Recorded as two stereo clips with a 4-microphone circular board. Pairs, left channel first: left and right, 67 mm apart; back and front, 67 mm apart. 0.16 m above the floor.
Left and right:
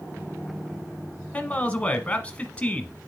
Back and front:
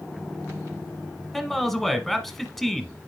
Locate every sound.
1.3 s a man speaking: 100° left, 1.0 m